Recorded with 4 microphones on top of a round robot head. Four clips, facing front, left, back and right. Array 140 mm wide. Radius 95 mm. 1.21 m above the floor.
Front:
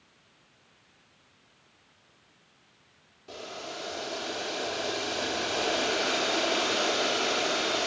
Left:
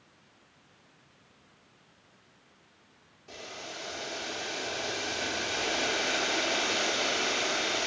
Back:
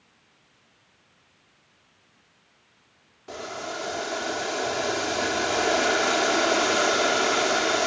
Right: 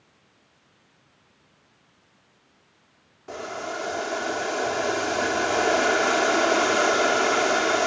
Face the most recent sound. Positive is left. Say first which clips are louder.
# right 12 dB, back 6 dB
turn(degrees=-120)